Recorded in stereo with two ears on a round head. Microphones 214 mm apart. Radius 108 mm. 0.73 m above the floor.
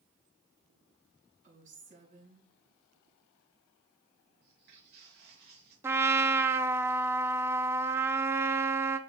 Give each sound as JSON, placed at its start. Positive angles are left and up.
{"t": 1.4, "sound": "a woman speaking", "side_deg": -35, "distance_m": 7.0}
{"t": 4.4, "sound": "footsteps", "side_deg": -50, "distance_m": 4.5}
{"t": 5.8, "sound": "a trumpet", "side_deg": -10, "distance_m": 0.6}